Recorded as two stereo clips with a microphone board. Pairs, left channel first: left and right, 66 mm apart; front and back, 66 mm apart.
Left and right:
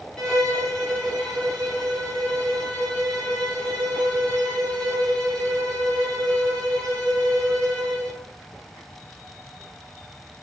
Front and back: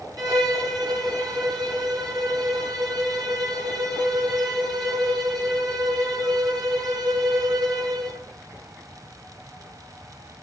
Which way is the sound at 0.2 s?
170° left.